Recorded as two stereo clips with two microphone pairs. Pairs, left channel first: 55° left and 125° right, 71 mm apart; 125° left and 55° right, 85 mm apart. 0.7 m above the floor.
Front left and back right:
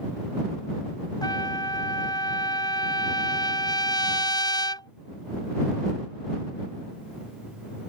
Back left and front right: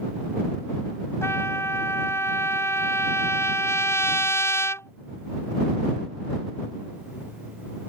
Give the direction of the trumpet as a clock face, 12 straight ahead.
10 o'clock.